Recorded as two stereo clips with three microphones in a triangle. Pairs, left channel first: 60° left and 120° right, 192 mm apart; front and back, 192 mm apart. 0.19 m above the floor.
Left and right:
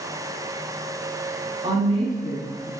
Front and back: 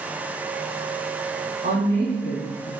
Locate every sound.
1.6 s a woman speaking: 165° right, 1.7 m